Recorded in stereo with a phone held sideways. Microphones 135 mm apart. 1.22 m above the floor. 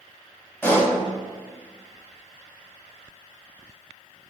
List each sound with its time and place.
0.6 s a pop: 15° left (ahead or behind), 1.1 m